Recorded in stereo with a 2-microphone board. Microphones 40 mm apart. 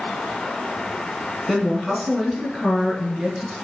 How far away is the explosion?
No explosion in this recording.